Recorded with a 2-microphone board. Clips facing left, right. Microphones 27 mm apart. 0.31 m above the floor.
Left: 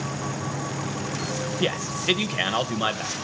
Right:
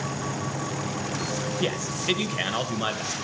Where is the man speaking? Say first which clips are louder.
Left 4 dB; 15° left (ahead or behind), 1.5 m.